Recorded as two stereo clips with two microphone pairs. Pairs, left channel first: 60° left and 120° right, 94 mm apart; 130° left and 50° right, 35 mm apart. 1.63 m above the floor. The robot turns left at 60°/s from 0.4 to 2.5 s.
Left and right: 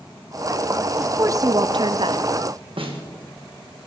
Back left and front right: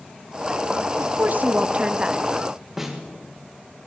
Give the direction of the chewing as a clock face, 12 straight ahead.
I don't hear chewing.